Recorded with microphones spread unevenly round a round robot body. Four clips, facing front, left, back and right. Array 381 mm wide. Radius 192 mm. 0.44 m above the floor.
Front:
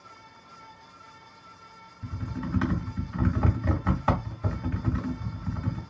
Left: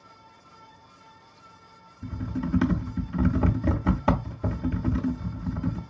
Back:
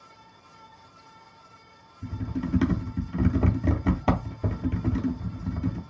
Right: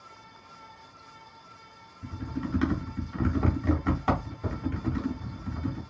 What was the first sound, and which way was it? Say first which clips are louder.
Typing on a keyboard: left 3 dB, back 4 dB; 140° left.